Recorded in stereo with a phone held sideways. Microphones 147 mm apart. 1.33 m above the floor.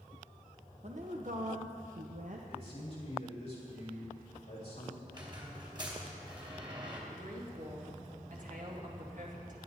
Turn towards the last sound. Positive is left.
turn(degrees=-60)  # may be behind; listen again after turning